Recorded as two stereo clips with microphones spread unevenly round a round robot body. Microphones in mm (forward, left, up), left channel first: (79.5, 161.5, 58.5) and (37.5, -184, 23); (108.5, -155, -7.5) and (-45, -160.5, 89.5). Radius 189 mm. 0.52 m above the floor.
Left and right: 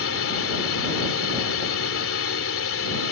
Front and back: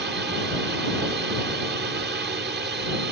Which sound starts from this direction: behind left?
A drone, at 0.0 s.